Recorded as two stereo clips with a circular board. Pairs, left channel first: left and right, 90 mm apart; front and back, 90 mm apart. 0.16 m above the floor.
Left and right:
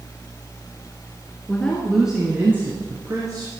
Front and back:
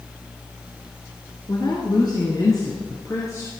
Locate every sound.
1.5 s a woman speaking: 20° left, 1.9 m; by 3.5 s 50° right, 3 m